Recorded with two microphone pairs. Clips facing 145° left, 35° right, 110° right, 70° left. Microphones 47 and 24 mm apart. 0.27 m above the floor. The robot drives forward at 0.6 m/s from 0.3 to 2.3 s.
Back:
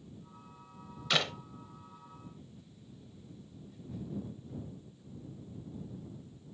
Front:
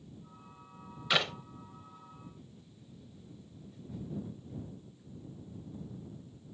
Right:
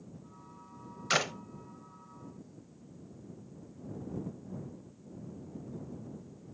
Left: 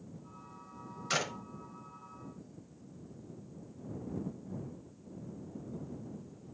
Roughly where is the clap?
Right.